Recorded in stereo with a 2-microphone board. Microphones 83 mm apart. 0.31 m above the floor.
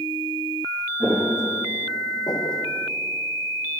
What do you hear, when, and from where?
1.0 s footsteps: 10° right (ahead or behind), 1.3 m; by 2.6 s 65° left (ahead or behind), 1.1 m